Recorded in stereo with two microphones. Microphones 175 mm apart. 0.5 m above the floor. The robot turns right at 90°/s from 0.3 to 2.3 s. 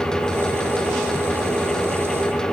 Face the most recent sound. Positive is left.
No sound to turn to.